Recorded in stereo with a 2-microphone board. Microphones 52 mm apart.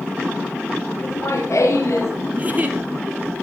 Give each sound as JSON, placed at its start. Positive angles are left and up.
{"t": 1.0, "sound": "laughter", "side_deg": 70, "distance_m": 3.5}
{"t": 2.3, "sound": "a giggle", "side_deg": -30, "distance_m": 1.3}